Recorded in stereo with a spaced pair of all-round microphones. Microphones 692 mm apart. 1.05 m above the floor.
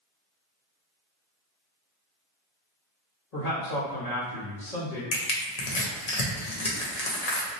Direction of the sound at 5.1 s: 70° left (ahead or behind).